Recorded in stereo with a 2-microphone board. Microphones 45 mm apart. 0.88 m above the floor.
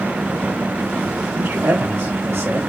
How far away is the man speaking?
About 4.5 m.